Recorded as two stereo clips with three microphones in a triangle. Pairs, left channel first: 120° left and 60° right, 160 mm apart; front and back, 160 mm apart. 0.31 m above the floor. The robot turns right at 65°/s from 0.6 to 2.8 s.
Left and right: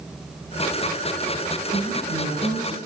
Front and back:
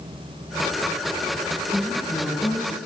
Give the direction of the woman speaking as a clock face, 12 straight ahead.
3 o'clock.